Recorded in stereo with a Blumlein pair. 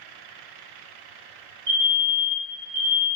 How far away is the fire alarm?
About 1.2 m.